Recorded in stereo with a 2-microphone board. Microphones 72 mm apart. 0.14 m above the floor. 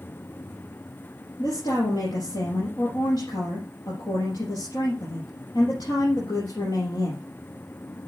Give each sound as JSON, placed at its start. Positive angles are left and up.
{"t": 1.4, "sound": "a woman speaking", "side_deg": 65, "distance_m": 4.0}